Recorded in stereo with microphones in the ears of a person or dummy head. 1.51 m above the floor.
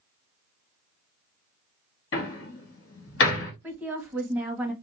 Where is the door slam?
60° left (ahead or behind), 1.7 m.